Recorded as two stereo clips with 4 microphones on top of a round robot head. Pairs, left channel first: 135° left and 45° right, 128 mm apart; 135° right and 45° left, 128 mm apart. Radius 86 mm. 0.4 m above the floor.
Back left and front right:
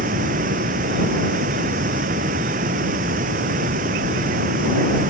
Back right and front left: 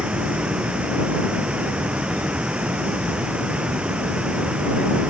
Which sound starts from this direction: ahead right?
Running water, at 0.0 s.